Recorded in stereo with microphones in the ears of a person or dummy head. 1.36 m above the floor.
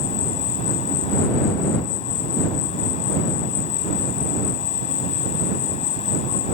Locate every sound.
0.0 s an insect: 30° left (ahead or behind)